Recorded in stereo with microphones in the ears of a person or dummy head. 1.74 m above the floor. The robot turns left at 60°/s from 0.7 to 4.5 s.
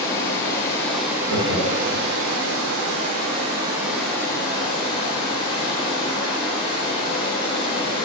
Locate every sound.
0.0 s running water: 15° left, 1.4 m; by 8.1 s 150° left, 1.4 m
1.3 s laughter: 55° right (ahead or behind), 3 m; by 2.0 s 75° right (ahead or behind), 3 m